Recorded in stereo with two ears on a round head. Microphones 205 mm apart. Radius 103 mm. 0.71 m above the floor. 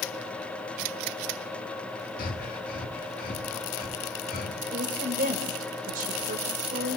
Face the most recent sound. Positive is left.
turn(degrees=-40)  # may be behind; listen again after turning